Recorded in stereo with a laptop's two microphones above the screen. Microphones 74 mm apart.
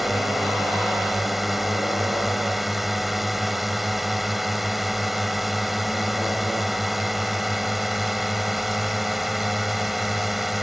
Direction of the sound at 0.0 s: Centre (ahead or behind).